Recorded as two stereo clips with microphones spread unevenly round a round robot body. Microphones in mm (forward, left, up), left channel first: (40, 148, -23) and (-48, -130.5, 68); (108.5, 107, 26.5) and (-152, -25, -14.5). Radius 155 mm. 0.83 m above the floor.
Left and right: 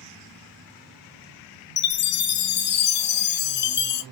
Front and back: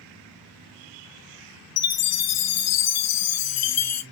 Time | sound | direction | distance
1.8 | a chime | 55° left | 0.6 m